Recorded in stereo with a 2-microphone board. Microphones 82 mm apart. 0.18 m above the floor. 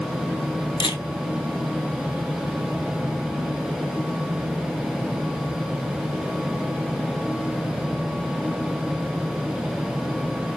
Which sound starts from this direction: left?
A camera shutter, at 0.8 s.